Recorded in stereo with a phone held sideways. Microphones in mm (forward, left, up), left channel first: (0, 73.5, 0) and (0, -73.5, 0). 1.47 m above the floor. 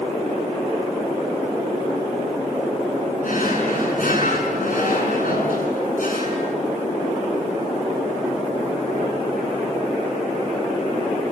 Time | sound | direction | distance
3.2 | a drawer | 70° left (ahead or behind) | 8 m